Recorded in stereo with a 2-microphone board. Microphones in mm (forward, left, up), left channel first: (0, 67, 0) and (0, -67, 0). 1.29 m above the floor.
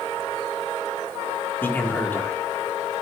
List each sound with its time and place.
1.6 s a man speaking: 15° left (ahead or behind), 1.6 m